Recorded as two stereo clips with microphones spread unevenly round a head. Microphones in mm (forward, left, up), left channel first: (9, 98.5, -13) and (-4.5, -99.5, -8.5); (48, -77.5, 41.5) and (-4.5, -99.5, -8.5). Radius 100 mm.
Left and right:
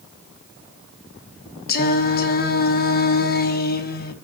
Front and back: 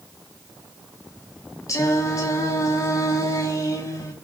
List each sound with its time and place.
1.7 s singing: 40° left, 1.4 m